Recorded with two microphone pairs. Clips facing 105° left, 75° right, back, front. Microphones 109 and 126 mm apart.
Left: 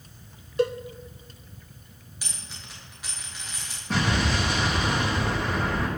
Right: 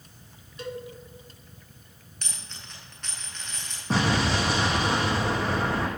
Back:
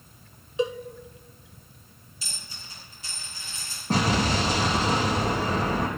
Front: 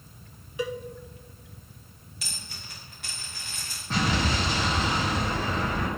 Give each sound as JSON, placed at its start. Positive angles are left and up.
{"t": 0.6, "sound": "a cowbell", "azimuth_deg": 115, "distance_m": 0.6}
{"t": 2.2, "sound": "a dropped coin", "azimuth_deg": 20, "distance_m": 7.0}
{"t": 3.9, "sound": "an explosion", "azimuth_deg": -130, "distance_m": 4.0}